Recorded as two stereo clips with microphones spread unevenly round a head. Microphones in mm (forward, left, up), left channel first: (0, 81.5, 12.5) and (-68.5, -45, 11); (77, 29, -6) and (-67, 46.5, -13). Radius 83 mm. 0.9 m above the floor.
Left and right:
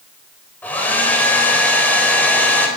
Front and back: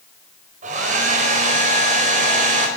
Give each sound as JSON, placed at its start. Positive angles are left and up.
{"t": 0.6, "sound": "a hair dryer", "azimuth_deg": 140, "distance_m": 4.5}